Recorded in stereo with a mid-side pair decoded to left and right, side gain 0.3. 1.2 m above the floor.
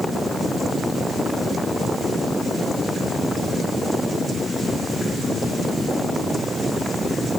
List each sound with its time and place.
Only background noise.